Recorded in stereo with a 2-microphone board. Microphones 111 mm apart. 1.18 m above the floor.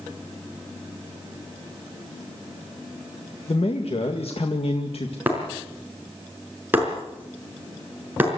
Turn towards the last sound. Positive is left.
turn(degrees=-15)  # may be behind; listen again after turning